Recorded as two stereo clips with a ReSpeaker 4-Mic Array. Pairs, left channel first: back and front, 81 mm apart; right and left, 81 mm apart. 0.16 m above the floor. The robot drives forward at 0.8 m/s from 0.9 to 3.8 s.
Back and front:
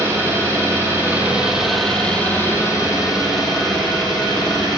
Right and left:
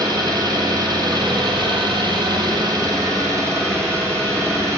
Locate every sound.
0.0 s an engine running: 60° left, 1.3 m; by 4.8 s 145° left, 2.0 m